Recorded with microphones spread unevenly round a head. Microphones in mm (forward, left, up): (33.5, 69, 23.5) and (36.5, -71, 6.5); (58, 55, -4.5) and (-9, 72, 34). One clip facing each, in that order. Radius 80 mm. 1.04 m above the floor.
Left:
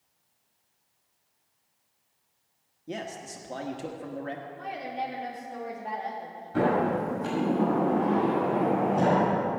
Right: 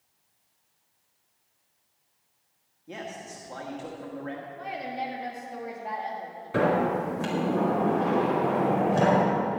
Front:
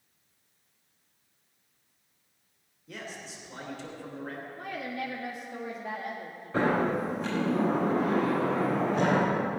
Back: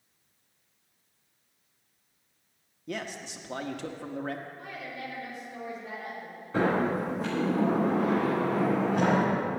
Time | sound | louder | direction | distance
2.9 | a man speaking | left 2 dB, back 5 dB | 150° left | 1.3 m
4.6 | a woman speaking | right 1 dB, front 4 dB | straight ahead | 1.9 m
6.5 | a sliding door | right 1 dB, even | 105° right | 4.5 m